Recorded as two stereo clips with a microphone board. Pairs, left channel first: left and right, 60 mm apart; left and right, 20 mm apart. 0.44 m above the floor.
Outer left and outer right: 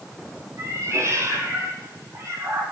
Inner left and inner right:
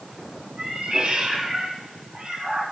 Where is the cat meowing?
60° right (ahead or behind), 6.5 m.